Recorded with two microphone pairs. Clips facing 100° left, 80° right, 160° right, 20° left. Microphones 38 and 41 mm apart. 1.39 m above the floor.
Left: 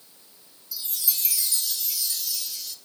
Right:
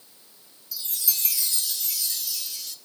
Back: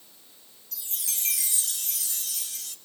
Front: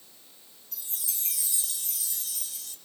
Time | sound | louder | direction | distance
0.7 | a chime | even, back 4 dB | 170° right | 1.2 m